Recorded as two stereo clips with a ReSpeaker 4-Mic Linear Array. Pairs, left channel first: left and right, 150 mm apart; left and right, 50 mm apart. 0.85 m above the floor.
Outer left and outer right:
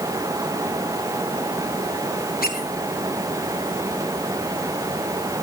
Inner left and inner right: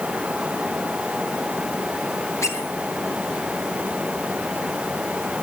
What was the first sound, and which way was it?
A squeak, 75° left (ahead or behind).